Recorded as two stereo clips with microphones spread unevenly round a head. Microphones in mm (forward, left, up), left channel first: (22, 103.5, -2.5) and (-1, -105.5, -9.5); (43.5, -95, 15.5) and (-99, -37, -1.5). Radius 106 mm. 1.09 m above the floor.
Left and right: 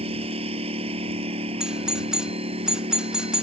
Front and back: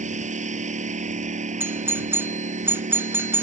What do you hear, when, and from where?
0.0 s a lawn mower: 160° right
1.6 s a doorbell: 175° right